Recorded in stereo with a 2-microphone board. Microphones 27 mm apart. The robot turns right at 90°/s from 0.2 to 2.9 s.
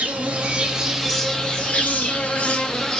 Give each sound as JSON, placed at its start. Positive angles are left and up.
{"t": 0.0, "sound": "an insect", "azimuth_deg": -80, "distance_m": 1.0}